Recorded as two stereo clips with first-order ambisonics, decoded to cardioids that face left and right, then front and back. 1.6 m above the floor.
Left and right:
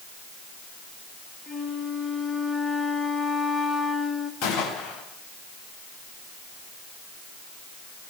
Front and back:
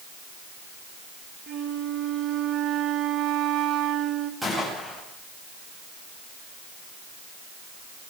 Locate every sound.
1.5 s a flute: 160° left, 1.6 m
4.4 s a gunshot: 95° left, 8.5 m